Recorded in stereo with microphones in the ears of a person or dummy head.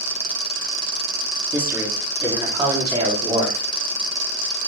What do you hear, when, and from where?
1.5 s a man speaking: 15° right (ahead or behind), 4 m; by 3.6 s 25° right (ahead or behind), 5.5 m